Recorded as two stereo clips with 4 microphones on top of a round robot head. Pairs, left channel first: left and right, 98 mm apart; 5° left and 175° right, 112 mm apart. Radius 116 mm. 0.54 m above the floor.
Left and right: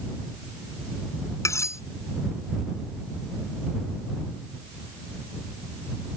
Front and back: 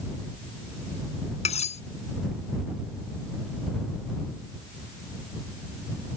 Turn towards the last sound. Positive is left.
turn(degrees=30)